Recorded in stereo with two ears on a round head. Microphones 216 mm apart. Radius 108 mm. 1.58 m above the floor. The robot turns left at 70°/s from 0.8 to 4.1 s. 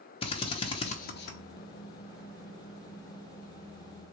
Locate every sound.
0.2 s a drill: 25° left (ahead or behind), 1.0 m; by 1.4 s 60° left (ahead or behind), 1.0 m